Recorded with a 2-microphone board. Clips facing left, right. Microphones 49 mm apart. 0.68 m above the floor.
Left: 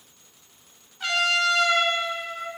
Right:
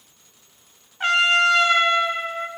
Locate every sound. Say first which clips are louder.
1.0 s a trumpet: right 5 dB; 40° right (ahead or behind), 2.5 m